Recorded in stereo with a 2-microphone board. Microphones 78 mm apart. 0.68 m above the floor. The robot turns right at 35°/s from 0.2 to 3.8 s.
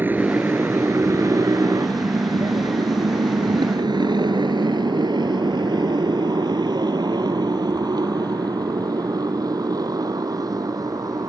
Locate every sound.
0.0 s a motorcycle: 30° right (ahead or behind); by 11.3 s 55° right (ahead or behind)